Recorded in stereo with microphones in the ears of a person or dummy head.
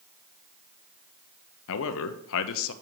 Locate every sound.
1.7 s a man speaking: 65° left (ahead or behind), 0.7 m